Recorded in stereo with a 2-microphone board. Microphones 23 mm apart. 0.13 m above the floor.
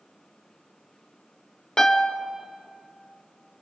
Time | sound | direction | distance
1.8 | a piano | 30° left (ahead or behind) | 1.2 m